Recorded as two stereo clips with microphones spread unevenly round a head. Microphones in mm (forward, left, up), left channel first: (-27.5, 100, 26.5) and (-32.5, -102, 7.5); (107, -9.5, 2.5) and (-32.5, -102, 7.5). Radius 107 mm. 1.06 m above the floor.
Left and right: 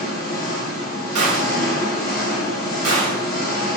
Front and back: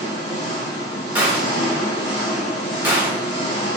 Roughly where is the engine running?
Left.